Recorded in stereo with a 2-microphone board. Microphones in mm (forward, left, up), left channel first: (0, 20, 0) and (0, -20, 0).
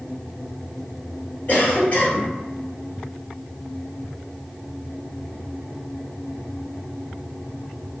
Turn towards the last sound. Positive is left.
turn(degrees=45)  # may be behind; listen again after turning